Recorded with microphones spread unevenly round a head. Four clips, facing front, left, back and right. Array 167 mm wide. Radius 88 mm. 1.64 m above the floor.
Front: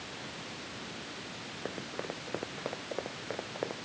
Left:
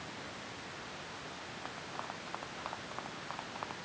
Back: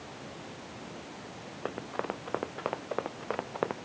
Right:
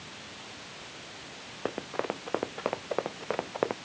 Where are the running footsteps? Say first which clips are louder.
Right 13 dB, back 5 dB; 115° right; by 3.8 s 120° right.